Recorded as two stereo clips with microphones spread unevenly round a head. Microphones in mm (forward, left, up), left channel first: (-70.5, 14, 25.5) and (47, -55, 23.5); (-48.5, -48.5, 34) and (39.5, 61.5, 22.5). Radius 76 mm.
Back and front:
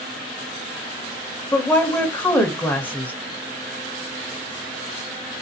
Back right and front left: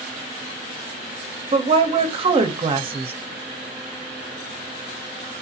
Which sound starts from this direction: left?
A woman speaking, at 1.5 s.